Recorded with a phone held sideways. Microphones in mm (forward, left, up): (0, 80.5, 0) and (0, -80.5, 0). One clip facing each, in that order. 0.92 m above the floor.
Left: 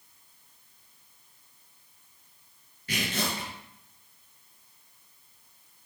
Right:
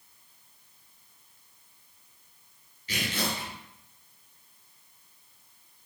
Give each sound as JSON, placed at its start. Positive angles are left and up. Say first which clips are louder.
{"t": 2.9, "sound": "tearing paper", "louder": "left 1 dB", "side_deg": 50, "distance_m": 3.5}